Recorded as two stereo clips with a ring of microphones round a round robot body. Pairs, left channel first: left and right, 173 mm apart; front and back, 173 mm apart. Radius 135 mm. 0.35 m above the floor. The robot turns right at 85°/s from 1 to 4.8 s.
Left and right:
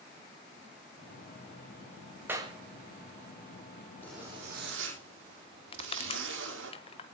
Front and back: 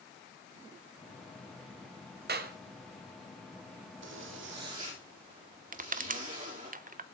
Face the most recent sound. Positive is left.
turn(degrees=145)